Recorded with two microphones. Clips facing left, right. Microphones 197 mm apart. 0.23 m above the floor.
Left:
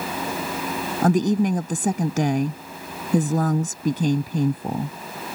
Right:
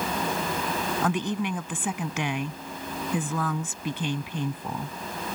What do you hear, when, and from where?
1.0 s a woman speaking: 40° left (ahead or behind)